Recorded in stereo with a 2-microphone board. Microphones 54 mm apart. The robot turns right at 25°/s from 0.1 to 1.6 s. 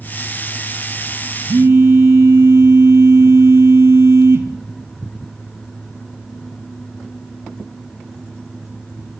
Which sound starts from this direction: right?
A phone buzzing, at 1.5 s.